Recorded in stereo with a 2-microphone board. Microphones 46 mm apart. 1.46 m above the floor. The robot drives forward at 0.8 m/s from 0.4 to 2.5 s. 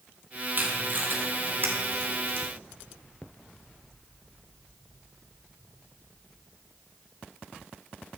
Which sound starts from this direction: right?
Tape being pulled, at 0.6 s.